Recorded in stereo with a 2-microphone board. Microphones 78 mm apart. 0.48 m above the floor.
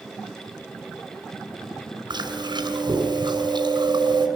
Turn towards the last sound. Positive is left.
turn(degrees=-70)  # may be behind; listen again after turning